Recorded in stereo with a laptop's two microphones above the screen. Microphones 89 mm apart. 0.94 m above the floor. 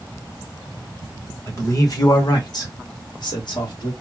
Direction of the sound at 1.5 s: 35° left (ahead or behind).